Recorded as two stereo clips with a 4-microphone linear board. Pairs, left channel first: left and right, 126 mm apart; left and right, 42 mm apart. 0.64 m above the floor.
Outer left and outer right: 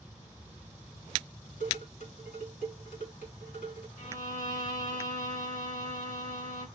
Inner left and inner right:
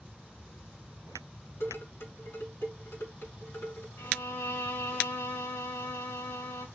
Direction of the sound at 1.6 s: 80° left.